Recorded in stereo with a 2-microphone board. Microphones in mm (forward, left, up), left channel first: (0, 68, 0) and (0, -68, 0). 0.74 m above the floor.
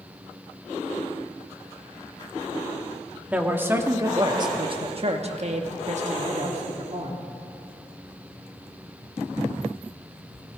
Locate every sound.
3.3 s a man speaking: 10° right (ahead or behind), 1.3 m; by 7.3 s 55° right (ahead or behind), 1.7 m